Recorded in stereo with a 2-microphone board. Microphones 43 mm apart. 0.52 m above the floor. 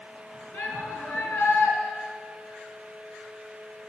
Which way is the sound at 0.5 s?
65° left (ahead or behind).